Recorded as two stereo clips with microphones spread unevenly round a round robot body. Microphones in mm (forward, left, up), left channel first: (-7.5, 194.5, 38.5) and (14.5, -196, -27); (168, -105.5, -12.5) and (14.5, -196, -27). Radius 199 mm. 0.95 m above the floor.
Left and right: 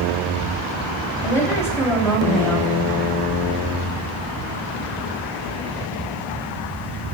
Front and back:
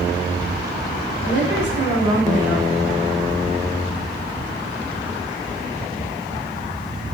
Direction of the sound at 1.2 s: Straight behind.